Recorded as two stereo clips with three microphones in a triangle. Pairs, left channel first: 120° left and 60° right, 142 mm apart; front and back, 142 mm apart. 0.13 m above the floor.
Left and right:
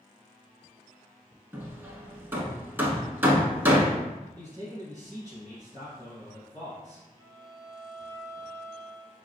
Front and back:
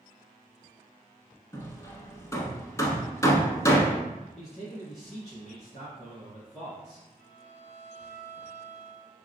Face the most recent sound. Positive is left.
turn(degrees=0)